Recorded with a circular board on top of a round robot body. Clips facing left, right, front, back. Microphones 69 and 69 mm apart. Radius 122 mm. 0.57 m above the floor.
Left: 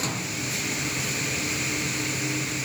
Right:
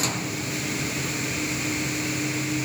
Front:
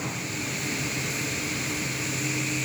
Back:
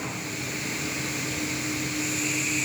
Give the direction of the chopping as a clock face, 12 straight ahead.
No chopping in this recording.